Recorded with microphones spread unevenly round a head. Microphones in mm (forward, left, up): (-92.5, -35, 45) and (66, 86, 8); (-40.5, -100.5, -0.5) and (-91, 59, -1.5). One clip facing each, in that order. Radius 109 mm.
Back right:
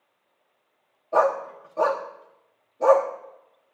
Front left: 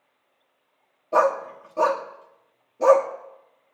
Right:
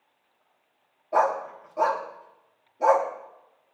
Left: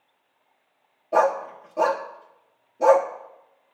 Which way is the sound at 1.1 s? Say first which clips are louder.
Front left 1 dB, left 3 dB; 75° left.